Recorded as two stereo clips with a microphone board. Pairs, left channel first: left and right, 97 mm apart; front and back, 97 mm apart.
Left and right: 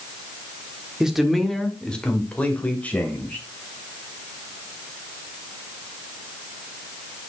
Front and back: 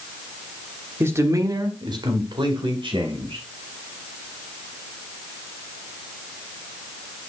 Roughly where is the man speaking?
Behind.